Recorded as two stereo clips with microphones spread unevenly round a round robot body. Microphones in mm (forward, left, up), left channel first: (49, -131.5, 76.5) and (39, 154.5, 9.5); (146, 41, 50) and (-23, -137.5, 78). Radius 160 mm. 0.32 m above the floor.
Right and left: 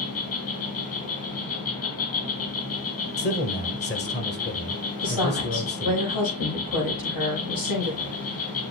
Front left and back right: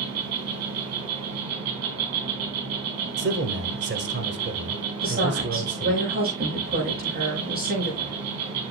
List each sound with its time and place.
0.0 s an insect: 135° right, 3 m
3.2 s a man speaking: 140° right, 1.5 m
5.0 s a woman speaking: 80° right, 7.5 m